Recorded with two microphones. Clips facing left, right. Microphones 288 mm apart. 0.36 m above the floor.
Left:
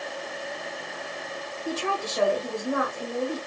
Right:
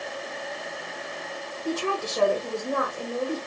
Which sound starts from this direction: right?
A woman speaking, at 1.6 s.